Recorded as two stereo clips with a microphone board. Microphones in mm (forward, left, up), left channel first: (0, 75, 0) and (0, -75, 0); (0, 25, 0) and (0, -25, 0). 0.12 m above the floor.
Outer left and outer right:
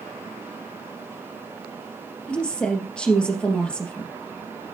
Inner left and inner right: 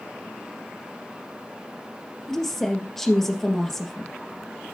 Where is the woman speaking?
5° left (ahead or behind), 3 m.